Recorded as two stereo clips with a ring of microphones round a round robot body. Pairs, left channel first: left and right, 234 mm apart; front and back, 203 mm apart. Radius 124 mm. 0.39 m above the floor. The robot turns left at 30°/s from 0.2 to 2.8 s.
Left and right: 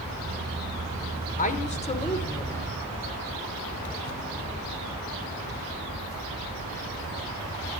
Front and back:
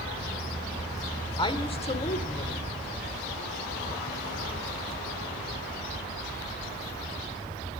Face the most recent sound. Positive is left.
turn(degrees=15)